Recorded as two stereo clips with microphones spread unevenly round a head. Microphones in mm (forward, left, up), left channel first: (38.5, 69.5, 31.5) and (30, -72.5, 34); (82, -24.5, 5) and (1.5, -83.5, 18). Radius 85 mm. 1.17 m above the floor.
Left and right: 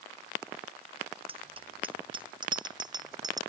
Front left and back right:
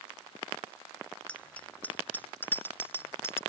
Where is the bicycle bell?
45° right; by 3.4 s 30° right.